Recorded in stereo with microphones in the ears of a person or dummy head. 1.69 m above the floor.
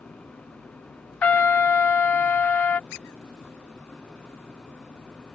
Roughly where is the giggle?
I don't hear a giggle.